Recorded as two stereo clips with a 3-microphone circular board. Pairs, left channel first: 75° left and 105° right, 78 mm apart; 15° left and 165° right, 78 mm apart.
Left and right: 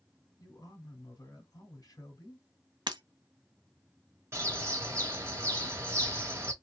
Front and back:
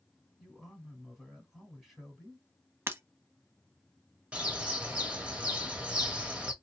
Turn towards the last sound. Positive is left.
turn(degrees=-105)